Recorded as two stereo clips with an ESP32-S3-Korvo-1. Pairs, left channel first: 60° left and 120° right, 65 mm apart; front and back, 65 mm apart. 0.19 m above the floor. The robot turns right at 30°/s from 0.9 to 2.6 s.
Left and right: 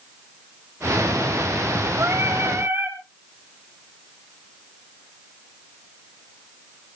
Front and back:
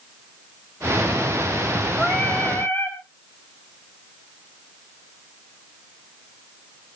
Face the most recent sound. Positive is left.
turn(degrees=-60)